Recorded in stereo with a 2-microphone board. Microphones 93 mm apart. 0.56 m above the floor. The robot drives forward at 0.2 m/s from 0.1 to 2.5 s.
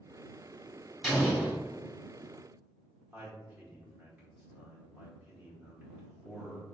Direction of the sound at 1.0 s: 5° right (ahead or behind).